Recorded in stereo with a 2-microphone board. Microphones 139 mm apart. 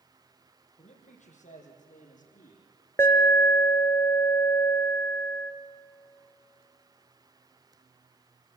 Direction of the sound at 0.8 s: 60° left (ahead or behind).